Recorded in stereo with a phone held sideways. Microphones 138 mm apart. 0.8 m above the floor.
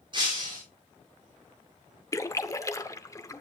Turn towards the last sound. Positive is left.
turn(degrees=25)  # may be behind; listen again after turning